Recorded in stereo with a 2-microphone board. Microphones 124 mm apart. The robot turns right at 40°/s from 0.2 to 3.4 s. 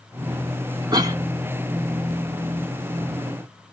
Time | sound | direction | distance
0.9 | a cough | 35° right (ahead or behind) | 0.8 m